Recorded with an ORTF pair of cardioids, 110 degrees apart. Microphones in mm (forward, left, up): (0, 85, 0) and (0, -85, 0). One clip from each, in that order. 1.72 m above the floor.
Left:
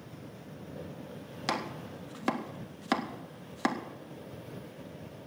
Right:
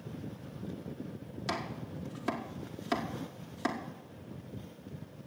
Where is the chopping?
35° left, 1.5 m.